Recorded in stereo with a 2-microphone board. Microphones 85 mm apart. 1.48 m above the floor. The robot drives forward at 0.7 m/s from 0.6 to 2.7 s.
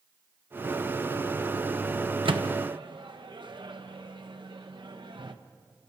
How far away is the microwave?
About 1.2 m.